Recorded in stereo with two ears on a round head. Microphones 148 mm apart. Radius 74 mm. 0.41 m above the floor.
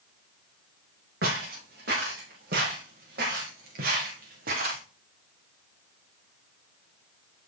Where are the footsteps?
65° right (ahead or behind), 9 m; by 4.8 s 55° right (ahead or behind), 5 m.